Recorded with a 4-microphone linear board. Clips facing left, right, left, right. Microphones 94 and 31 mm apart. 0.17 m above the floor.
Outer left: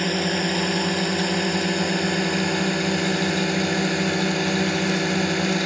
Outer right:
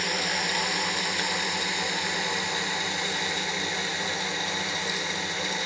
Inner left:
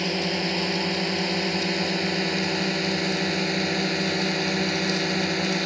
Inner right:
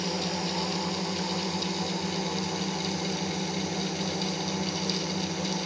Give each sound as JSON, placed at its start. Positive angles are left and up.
{"t": 0.0, "sound": "a drone", "side_deg": 50}